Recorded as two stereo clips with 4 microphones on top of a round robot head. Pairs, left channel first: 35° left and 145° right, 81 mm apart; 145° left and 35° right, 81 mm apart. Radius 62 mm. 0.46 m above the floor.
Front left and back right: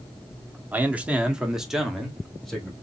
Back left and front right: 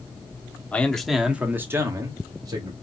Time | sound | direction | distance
0.7 | a man speaking | 175° right | 1.2 m